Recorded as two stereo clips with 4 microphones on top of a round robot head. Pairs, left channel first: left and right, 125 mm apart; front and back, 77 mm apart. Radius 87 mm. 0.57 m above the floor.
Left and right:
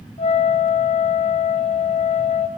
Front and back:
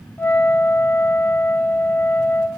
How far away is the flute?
About 4 m.